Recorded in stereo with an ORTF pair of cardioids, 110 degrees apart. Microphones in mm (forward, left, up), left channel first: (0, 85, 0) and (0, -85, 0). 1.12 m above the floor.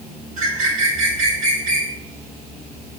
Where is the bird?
55° right, 2 m.